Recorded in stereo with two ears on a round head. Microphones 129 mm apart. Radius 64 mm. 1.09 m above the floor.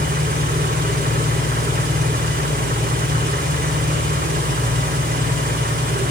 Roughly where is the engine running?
Right.